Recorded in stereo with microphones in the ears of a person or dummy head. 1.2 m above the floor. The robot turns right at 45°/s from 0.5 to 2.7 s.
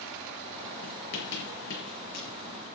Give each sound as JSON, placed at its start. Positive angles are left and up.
{"t": 0.8, "sound": "writing", "side_deg": 70, "distance_m": 5.0}